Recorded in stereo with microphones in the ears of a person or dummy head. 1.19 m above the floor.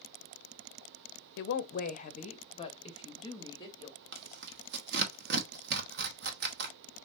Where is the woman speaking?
65° left (ahead or behind), 0.6 m; by 4.0 s 25° left (ahead or behind), 1.8 m.